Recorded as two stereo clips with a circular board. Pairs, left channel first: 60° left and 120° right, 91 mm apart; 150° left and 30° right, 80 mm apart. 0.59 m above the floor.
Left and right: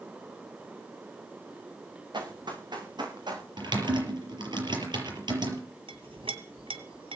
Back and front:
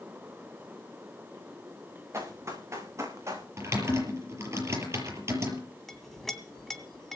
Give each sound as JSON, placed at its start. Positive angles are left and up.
{"t": 2.1, "sound": "running footsteps", "azimuth_deg": -85, "distance_m": 7.5}
{"t": 3.6, "sound": "typing on a keyboard", "azimuth_deg": -85, "distance_m": 5.5}
{"t": 5.9, "sound": "a clink", "azimuth_deg": -125, "distance_m": 2.0}